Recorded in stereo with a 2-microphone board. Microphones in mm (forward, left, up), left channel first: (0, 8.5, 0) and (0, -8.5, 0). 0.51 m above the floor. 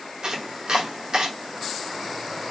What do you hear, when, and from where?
0.2 s chopping: 50° right (ahead or behind), 1.1 m